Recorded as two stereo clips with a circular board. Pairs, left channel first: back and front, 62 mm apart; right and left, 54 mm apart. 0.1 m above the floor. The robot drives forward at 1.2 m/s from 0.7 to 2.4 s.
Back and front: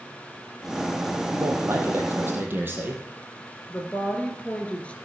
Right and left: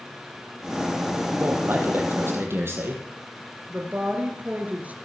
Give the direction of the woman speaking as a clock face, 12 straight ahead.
8 o'clock.